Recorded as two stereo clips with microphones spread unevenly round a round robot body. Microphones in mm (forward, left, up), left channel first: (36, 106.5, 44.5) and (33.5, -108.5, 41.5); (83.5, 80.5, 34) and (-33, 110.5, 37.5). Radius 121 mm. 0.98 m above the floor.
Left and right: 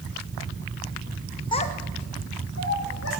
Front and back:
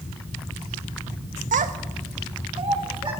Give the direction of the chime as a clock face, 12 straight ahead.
I don't hear a chime.